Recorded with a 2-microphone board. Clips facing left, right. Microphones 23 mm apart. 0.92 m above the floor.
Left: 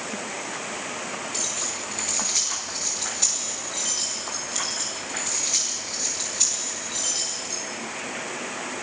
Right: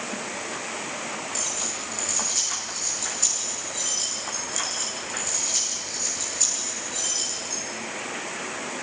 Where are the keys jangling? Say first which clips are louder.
Left 1 dB; 75° left (ahead or behind), 9.5 m.